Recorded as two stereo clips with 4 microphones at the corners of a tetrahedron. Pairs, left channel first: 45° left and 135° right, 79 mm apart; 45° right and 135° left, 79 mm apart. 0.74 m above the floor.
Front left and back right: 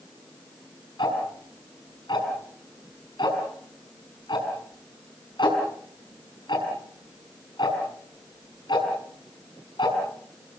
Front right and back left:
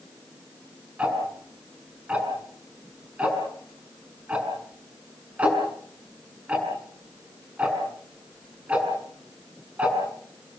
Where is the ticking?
60° left, 6.5 m.